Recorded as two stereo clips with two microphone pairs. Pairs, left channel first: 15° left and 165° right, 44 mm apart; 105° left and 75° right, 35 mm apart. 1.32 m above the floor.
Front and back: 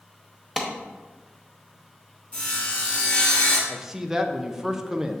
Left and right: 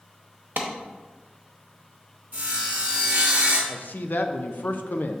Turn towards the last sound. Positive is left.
turn(degrees=115)